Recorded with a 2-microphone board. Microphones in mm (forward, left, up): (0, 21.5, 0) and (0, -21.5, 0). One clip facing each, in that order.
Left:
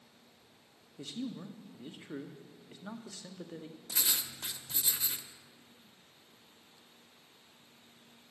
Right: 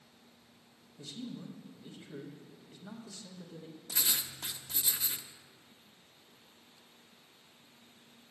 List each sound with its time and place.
1.0 s a man speaking: 65° left (ahead or behind), 1.2 m
3.9 s writing: 5° right (ahead or behind), 0.7 m